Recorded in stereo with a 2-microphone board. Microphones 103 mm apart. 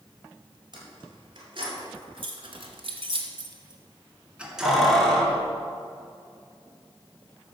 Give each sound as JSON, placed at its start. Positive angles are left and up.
{"t": 0.7, "sound": "keys jangling", "side_deg": -45, "distance_m": 4.0}